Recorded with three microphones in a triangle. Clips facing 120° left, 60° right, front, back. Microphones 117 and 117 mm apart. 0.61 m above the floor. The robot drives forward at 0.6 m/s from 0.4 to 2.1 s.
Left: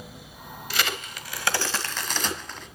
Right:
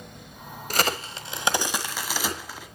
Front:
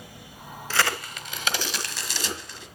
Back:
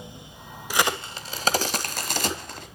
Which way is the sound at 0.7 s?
105° right.